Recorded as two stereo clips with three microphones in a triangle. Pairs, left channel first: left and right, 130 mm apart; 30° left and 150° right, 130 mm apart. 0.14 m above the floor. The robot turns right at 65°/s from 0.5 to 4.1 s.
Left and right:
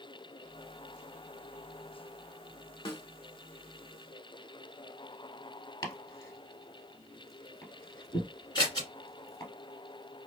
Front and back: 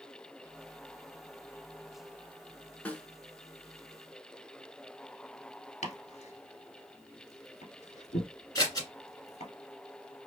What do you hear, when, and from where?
2.9 s a snare drum: 100° left, 0.6 m; by 3.0 s 115° left, 0.6 m
5.8 s chopping: 30° left, 1.3 m
8.6 s scissors: 65° left, 1.6 m